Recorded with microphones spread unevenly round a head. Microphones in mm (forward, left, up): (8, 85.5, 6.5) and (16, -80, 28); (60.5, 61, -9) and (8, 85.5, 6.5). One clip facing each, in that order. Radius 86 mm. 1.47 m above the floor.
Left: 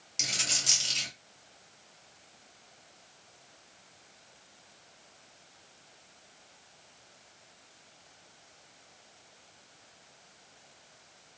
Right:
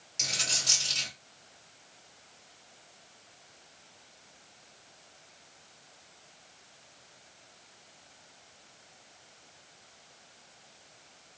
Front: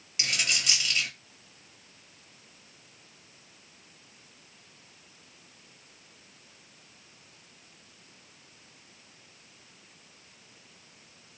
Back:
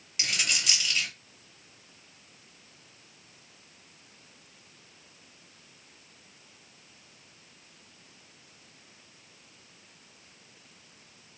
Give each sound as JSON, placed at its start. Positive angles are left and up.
{"t": 0.2, "sound": "a dropped coin", "azimuth_deg": 80, "distance_m": 1.7}